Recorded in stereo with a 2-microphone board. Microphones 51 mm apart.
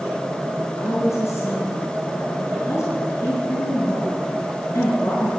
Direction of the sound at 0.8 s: 70° left (ahead or behind).